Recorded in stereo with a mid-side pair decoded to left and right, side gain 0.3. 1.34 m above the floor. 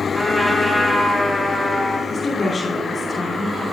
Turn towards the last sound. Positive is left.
turn(degrees=45)